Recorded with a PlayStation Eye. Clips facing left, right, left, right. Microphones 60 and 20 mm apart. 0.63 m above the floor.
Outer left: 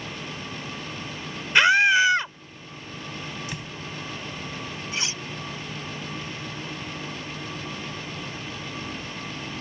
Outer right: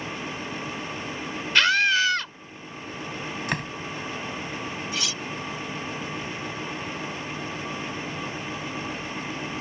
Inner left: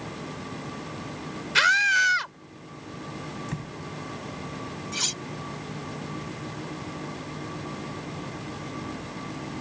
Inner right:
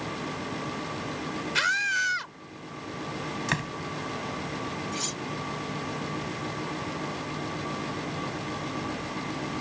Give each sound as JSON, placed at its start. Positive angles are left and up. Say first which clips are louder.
{"t": 1.6, "sound": "a scream", "louder": "outer left 3 dB, inner left 6 dB", "side_deg": 20}
{"t": 3.5, "sound": "a door slam", "louder": "outer right 7 dB, inner right 7 dB", "side_deg": -60}
{"t": 4.9, "sound": "cutlery clinking", "louder": "outer left 2 dB, inner left 3 dB", "side_deg": 30}